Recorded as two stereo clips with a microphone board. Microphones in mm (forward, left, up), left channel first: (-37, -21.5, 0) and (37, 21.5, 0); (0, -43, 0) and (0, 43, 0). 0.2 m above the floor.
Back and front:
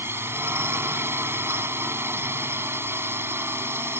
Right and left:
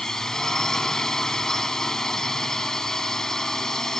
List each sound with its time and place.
0.0 s a drone: 10° right